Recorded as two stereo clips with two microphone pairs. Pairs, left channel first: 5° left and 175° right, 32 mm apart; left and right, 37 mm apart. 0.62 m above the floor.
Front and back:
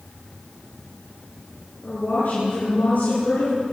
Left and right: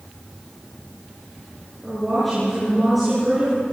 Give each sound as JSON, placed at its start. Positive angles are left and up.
{"t": 1.8, "sound": "a woman speaking", "azimuth_deg": -5, "distance_m": 9.5}